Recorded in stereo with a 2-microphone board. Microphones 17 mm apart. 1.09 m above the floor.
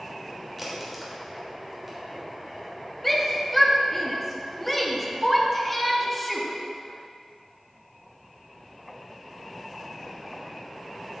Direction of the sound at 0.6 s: 5° right (ahead or behind).